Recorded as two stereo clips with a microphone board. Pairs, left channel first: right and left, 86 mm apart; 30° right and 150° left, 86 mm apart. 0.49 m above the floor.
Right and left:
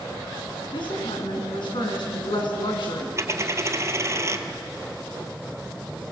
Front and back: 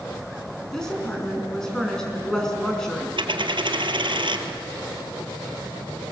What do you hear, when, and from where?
0.7 s a woman speaking: 115° right, 5 m
3.2 s a dropped coin: 145° left, 1.2 m